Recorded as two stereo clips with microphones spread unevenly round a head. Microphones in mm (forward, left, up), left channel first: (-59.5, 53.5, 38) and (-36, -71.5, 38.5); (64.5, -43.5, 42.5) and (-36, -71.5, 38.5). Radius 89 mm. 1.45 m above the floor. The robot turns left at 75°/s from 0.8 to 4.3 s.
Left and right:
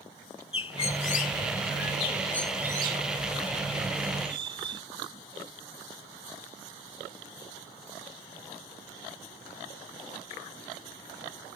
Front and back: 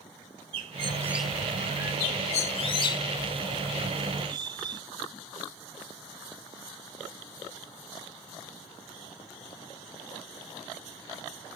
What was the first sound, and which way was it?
A bird, 135° left.